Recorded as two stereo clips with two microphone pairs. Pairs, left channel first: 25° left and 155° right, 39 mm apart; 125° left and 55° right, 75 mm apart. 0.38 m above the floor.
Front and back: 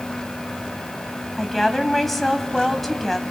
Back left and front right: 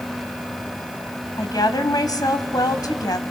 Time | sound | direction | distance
1.4 | a woman speaking | 110° left | 2 m